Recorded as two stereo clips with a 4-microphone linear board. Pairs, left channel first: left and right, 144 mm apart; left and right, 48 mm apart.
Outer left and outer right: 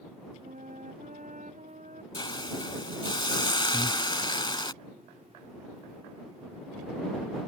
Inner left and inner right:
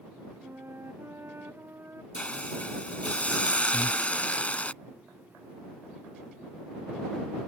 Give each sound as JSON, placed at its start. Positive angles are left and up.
{"t": 0.4, "sound": "a flute", "side_deg": -60}
{"t": 2.1, "sound": "a hiss", "side_deg": 35}
{"t": 3.7, "sound": "breathing", "side_deg": 30}